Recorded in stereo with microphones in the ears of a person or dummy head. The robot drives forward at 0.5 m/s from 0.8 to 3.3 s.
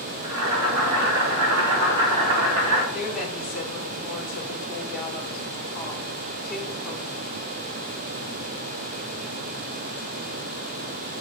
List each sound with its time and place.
0.2 s boiling: 70° right (ahead or behind), 4.5 m; by 2.8 s 80° right, 4.5 m
2.9 s a woman speaking: centre (ahead or behind), 3 m